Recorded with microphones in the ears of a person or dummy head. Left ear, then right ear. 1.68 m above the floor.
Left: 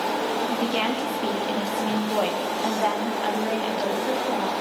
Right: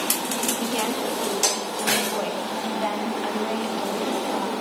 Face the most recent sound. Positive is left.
turn(degrees=5)  # may be behind; listen again after turning